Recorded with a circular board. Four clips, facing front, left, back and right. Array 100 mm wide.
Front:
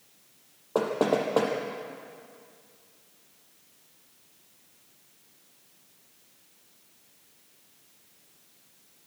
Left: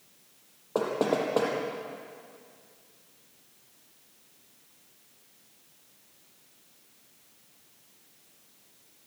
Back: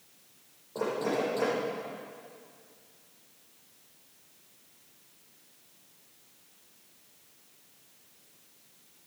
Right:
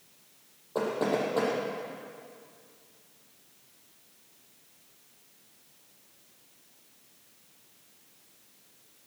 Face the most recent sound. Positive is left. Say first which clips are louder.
# left 1 dB, front 5 dB
turn(degrees=30)